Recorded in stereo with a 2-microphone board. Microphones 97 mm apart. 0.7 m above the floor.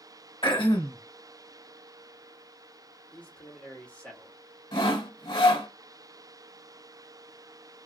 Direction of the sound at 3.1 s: 10° left (ahead or behind).